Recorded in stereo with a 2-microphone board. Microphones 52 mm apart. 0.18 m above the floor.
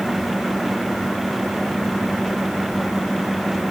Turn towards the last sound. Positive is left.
No sound to turn to.